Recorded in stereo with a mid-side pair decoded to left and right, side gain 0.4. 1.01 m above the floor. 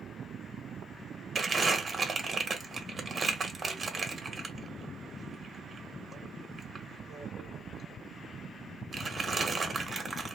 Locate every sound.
1.4 s crumpling: 30° right, 1.2 m